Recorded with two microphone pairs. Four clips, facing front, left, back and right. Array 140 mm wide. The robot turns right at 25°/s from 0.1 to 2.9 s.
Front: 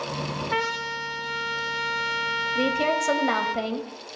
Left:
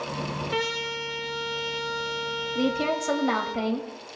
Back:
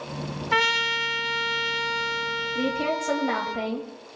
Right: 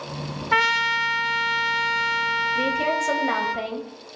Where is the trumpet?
120° right, 1.0 m; by 3.5 s 60° right, 1.0 m.